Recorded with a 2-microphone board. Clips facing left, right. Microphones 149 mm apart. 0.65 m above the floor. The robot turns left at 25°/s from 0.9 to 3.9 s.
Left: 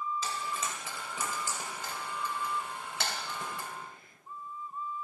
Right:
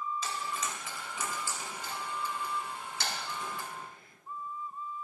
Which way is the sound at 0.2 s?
35° left (ahead or behind).